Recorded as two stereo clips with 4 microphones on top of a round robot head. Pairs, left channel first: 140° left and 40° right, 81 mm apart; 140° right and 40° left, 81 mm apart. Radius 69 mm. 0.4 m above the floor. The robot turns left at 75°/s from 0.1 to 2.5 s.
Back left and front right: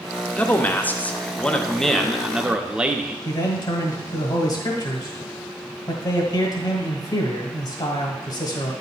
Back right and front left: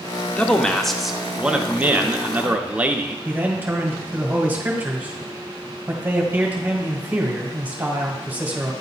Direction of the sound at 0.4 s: 175° left.